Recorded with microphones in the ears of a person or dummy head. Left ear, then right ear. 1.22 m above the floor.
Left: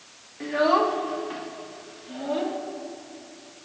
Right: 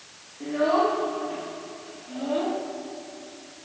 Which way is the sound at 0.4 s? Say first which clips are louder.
Left 1 dB; 65° left (ahead or behind).